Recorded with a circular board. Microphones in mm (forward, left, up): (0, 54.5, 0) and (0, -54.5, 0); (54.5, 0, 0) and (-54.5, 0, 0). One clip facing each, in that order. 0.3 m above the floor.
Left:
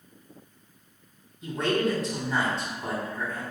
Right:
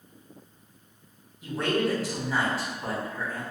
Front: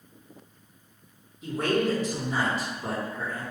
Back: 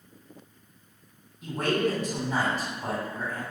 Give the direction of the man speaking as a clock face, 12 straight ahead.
6 o'clock.